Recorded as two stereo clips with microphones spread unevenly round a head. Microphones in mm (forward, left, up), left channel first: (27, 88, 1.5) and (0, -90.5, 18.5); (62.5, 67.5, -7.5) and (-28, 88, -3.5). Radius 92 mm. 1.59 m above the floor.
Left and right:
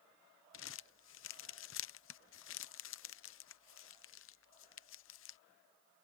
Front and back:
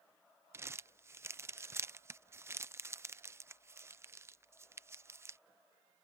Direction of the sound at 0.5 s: 105° left.